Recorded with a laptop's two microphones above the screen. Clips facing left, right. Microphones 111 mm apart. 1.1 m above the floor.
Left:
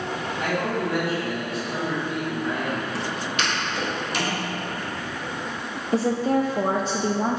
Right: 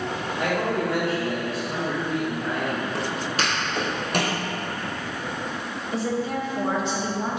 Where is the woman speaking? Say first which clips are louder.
Left 5 dB; 40° left (ahead or behind), 0.5 m.